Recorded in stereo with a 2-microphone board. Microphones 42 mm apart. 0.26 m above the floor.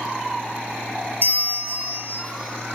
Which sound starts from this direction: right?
A bell, at 1.2 s.